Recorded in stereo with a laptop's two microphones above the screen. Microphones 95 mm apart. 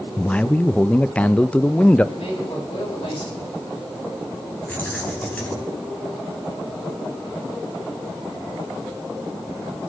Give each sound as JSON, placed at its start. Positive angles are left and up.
{"t": 0.2, "sound": "a man speaking", "side_deg": 15, "distance_m": 0.7}
{"t": 2.1, "sound": "a man speaking", "side_deg": 85, "distance_m": 8.5}
{"t": 4.7, "sound": "keys jangling", "side_deg": 15, "distance_m": 5.5}